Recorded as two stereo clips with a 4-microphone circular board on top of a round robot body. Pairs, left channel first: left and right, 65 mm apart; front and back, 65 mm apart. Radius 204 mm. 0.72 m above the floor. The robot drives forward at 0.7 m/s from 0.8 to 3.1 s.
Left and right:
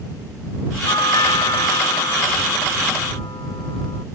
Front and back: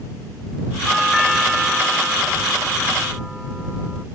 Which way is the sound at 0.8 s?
90° left.